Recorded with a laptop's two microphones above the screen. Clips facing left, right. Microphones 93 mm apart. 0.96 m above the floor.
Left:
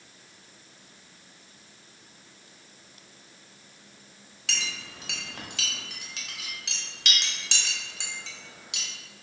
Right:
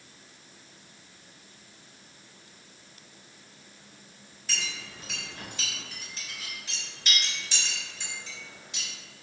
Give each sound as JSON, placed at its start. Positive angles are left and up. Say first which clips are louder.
{"t": 4.5, "sound": "a clink", "louder": "left 1 dB", "side_deg": 75, "distance_m": 0.7}